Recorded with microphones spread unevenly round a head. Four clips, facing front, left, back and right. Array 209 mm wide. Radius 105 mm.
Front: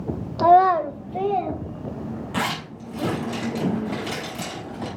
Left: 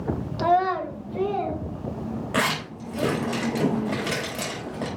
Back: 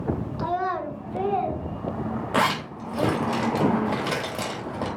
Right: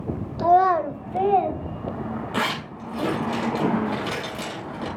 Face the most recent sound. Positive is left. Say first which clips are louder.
# left 2 dB, back 5 dB
turn(degrees=165)